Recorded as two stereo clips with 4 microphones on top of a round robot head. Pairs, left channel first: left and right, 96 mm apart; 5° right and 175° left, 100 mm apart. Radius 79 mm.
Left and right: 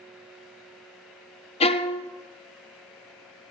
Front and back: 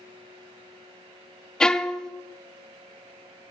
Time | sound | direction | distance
1.6 | a violin | 80° left | 0.5 m